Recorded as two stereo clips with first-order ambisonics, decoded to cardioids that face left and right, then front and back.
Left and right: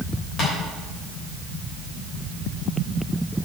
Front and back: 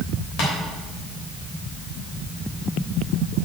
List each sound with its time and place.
0.4 s tapping: 30° left, 3.5 m